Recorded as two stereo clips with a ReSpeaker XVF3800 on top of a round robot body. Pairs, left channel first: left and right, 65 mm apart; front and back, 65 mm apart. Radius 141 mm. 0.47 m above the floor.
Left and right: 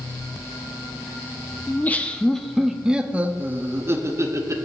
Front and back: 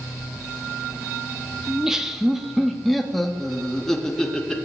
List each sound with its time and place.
1.7 s laughter: 105° left, 1.3 m; by 4.7 s 80° right, 1.8 m